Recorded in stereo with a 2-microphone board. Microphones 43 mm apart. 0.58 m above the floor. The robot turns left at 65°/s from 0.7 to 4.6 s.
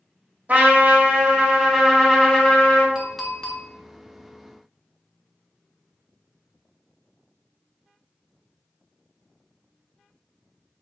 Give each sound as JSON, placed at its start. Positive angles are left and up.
{"t": 0.5, "sound": "a trumpet", "azimuth_deg": -100, "distance_m": 1.1}
{"t": 3.0, "sound": "a clink", "azimuth_deg": -170, "distance_m": 0.8}